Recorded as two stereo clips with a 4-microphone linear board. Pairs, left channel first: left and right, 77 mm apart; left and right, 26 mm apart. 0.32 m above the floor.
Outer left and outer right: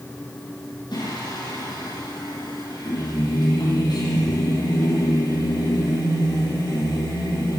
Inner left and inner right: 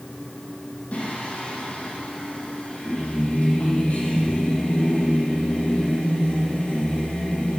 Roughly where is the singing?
Left.